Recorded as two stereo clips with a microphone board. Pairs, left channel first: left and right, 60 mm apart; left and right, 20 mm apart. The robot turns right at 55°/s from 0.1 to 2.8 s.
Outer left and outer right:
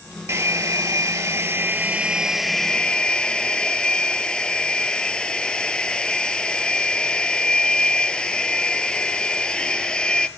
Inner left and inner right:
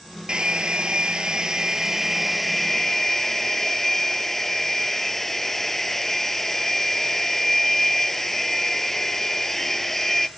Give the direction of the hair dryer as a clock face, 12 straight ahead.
4 o'clock.